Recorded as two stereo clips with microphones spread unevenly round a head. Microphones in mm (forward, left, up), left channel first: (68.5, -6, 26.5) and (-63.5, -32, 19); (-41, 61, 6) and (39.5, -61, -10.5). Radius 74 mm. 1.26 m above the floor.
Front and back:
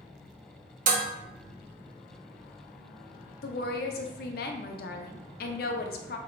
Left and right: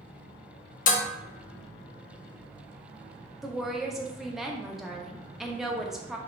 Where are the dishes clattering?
150° left, 0.6 m.